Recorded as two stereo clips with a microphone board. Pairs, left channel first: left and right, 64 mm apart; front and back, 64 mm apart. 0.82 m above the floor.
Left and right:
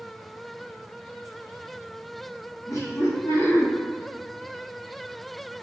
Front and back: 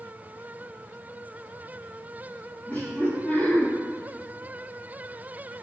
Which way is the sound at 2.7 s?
60° left.